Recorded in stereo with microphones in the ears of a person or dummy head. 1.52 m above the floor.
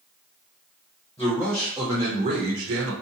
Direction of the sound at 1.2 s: 15° left (ahead or behind).